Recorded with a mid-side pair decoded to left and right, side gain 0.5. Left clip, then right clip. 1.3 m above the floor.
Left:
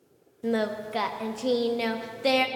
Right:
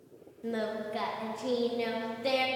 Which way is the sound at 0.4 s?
50° left.